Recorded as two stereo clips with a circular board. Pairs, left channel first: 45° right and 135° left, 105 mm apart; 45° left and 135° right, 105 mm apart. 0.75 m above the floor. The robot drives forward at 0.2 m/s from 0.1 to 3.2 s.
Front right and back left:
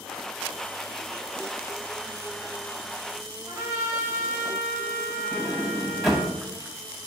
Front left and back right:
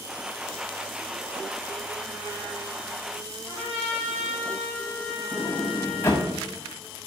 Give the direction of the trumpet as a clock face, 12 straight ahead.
4 o'clock.